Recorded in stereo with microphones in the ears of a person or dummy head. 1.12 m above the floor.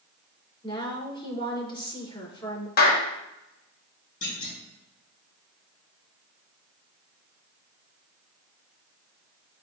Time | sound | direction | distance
0.6 | a woman speaking | 25° left (ahead or behind) | 3 m
2.8 | a clap | 55° left (ahead or behind) | 1.1 m
4.2 | a clunk | 45° left (ahead or behind) | 3.5 m